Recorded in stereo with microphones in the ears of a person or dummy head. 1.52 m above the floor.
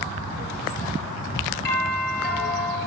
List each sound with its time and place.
1.6 s a doorbell: 55° left (ahead or behind), 2 m